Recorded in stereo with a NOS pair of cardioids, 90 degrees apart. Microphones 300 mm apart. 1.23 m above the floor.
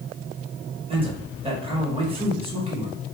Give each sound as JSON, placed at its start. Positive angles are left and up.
{"t": 0.9, "sound": "a man speaking", "azimuth_deg": -20, "distance_m": 1.5}